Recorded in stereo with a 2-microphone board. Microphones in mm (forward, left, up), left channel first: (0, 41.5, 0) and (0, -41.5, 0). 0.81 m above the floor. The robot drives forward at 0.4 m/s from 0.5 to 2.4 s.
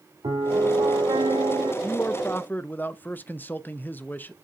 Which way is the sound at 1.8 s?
20° left (ahead or behind).